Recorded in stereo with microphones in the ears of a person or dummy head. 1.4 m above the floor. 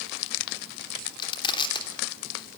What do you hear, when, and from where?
1.2 s crushing: 30° left (ahead or behind), 3 m